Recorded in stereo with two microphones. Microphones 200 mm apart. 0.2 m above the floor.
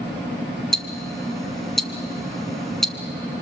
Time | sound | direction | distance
0.7 | ticking | centre (ahead or behind) | 1.2 m